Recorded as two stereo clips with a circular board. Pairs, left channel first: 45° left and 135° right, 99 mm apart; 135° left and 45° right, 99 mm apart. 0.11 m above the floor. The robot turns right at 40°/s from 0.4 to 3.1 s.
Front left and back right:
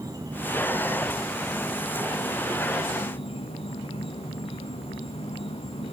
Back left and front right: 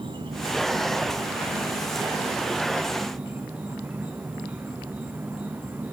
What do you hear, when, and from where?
0.0 s an insect: 80° right, 3.5 m; by 5.9 s 25° left, 3.5 m